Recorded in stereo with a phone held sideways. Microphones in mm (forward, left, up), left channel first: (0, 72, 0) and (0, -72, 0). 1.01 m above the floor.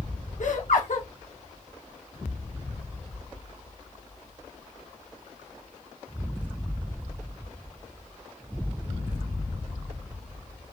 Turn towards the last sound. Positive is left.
turn(degrees=65)  # may be behind; listen again after turning